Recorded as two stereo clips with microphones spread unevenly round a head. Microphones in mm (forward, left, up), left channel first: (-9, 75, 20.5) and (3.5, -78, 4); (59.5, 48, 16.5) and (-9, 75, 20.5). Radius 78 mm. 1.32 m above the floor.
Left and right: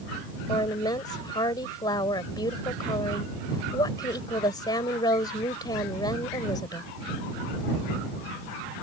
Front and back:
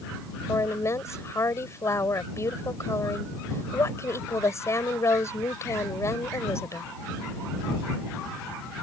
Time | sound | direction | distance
0.5 | a woman speaking | 30° left | ?